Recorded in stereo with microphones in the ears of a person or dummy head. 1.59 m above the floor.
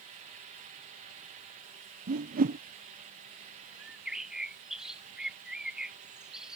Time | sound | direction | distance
2.1 | a whoosh | 45° right (ahead or behind) | ?
3.8 | a bird | centre (ahead or behind) | ?